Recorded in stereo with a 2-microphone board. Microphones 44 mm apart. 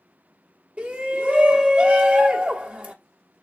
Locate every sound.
0.8 s a shout: 35° right (ahead or behind), 0.9 m